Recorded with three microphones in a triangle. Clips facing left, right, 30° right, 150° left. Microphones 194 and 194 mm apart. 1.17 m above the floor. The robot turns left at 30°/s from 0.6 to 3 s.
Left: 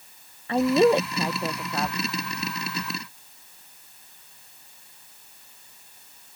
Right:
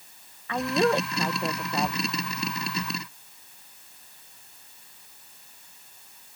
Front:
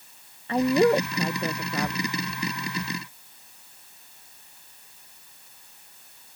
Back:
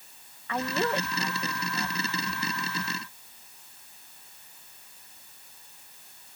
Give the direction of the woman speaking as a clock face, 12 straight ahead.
11 o'clock.